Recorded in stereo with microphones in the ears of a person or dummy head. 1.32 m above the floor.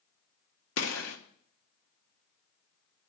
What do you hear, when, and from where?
0.8 s a gunshot: 75° left (ahead or behind), 1.3 m